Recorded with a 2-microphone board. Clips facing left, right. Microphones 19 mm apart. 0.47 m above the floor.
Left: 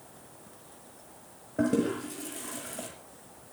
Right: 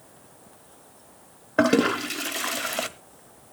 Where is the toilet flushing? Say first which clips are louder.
Right 7 dB; 75° right (ahead or behind), 1.0 m.